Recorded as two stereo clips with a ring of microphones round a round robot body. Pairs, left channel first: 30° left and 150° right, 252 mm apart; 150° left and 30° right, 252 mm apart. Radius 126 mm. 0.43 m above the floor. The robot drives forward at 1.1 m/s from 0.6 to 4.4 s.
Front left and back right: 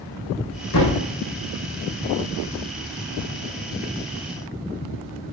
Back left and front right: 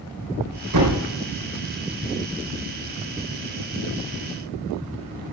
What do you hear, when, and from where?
0.7 s a thud: 5° right, 5 m